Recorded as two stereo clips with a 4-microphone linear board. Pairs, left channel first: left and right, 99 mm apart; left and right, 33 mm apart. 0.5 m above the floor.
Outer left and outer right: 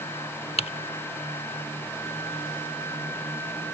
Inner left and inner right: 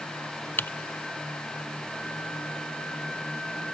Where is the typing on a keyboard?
75° left (ahead or behind).